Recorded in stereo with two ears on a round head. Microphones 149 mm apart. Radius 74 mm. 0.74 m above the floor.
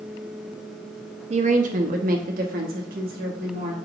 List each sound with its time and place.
1.3 s a woman speaking: 40° right (ahead or behind), 0.6 m; by 3.8 s 60° right (ahead or behind), 1.6 m